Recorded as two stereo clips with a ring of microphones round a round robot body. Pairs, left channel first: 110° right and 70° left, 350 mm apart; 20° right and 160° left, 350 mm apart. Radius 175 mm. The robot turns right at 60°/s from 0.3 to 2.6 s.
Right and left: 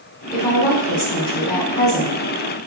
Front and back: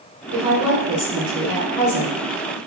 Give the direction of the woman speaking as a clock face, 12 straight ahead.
6 o'clock.